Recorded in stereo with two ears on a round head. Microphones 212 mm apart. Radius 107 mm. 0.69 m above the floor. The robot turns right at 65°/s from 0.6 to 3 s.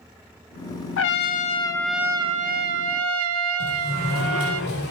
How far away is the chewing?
I don't hear chewing.